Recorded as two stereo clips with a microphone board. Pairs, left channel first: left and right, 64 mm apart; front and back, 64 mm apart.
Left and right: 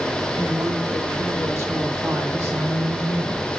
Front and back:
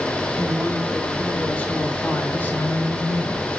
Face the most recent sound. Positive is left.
turn(degrees=-45)